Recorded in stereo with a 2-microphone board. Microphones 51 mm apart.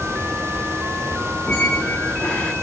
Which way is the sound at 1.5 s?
25° left (ahead or behind).